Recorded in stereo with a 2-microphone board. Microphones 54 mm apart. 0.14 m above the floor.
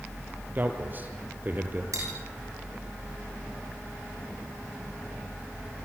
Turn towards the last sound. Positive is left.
turn(degrees=-75)  # may be behind; listen again after turning